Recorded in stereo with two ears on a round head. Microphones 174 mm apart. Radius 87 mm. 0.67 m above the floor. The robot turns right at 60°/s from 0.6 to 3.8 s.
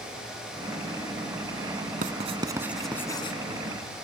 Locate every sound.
2.0 s writing: 45° right (ahead or behind); by 3.4 s 30° left (ahead or behind)